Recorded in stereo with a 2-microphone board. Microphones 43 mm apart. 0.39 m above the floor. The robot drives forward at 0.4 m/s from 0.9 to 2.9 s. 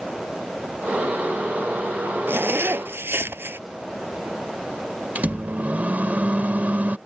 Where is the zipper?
55° right (ahead or behind); by 3.6 s 60° right (ahead or behind).